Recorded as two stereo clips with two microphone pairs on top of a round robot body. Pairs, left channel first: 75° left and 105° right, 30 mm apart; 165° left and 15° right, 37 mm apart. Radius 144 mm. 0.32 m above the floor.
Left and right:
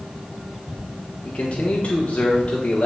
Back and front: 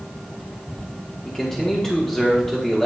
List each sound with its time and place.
1.2 s a man speaking: 90° left, 1.6 m